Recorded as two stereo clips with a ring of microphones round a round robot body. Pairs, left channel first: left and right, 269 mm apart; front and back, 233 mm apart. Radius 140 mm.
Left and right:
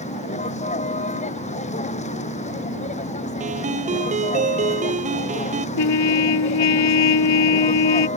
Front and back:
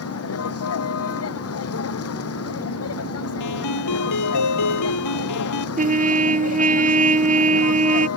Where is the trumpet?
120° left.